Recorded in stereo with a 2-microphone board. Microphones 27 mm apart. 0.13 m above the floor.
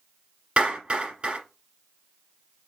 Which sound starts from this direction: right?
A clap, at 0.6 s.